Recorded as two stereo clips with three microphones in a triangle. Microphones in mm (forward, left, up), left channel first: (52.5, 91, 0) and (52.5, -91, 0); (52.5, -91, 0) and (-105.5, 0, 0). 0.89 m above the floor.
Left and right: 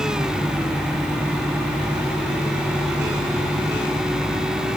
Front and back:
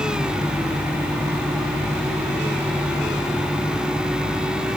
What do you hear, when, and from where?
Only background noise.